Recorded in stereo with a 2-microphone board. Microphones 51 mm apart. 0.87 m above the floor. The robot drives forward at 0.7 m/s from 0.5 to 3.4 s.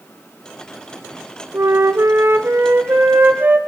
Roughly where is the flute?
Right.